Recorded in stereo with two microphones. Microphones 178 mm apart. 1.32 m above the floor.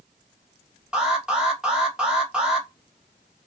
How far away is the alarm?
About 1.1 m.